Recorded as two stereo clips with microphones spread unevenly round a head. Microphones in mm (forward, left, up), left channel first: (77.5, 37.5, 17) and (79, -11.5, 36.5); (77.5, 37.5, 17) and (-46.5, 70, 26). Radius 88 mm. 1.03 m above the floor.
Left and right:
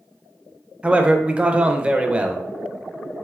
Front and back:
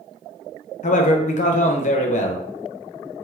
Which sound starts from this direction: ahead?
A man speaking, at 0.8 s.